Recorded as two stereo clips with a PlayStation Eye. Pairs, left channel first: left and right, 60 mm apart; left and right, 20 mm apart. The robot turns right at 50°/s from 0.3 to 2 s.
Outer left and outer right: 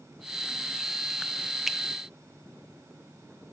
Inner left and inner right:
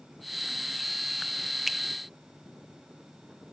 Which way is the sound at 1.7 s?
5° right (ahead or behind).